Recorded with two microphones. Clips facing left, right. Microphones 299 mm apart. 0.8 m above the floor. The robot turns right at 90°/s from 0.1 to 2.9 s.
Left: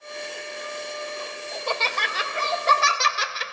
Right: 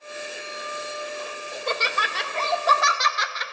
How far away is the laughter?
About 0.5 m.